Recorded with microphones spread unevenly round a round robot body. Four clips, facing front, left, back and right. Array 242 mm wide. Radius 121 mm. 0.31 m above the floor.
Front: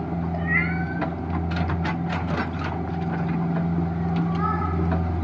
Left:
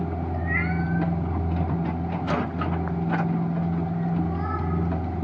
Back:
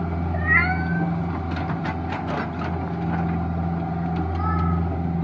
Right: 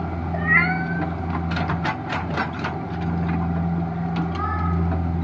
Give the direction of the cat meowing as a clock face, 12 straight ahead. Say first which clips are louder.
Right 8 dB, back 5 dB; 3 o'clock.